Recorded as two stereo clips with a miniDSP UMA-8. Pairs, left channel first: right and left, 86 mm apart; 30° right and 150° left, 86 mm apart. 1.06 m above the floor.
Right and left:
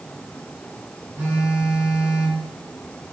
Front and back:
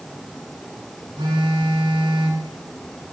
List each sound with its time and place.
1.2 s a phone buzzing: 160° left, 3.5 m